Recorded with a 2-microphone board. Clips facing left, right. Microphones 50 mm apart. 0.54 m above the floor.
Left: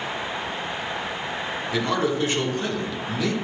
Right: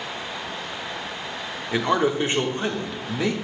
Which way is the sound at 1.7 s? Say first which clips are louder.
Right 3 dB; 25° right (ahead or behind).